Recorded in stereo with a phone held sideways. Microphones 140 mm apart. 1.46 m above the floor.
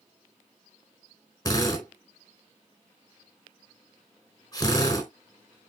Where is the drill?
25° left (ahead or behind), 4 m.